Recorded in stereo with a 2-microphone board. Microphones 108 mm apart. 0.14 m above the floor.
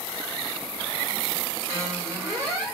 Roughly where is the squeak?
Right.